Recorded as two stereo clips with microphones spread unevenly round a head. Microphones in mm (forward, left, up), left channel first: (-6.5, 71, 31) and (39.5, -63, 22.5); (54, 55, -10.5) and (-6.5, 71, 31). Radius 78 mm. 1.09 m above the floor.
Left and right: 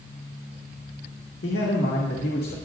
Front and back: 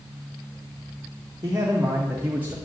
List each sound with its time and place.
1.4 s a man speaking: 110° left, 2.0 m; by 2.5 s 95° left, 1.7 m